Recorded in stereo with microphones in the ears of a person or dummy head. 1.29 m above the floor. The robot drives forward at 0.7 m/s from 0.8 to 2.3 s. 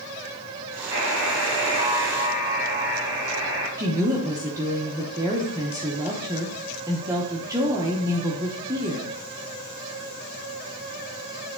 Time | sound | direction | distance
0.9 | a buzzer | 25° right (ahead or behind) | 3 m
3.8 | a woman speaking | 15° right (ahead or behind) | 0.9 m